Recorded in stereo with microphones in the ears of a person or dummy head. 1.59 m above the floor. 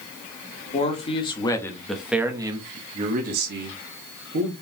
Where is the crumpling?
I don't hear crumpling.